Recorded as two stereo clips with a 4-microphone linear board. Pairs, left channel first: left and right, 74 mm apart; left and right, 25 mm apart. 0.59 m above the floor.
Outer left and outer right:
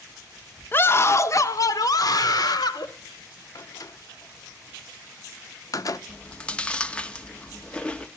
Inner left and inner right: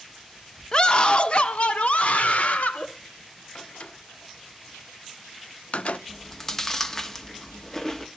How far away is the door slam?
About 0.6 m.